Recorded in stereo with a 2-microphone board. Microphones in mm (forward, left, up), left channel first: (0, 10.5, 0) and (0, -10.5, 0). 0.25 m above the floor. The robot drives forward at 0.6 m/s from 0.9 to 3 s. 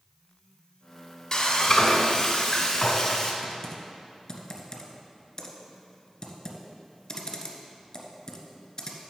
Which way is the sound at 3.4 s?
30° left (ahead or behind).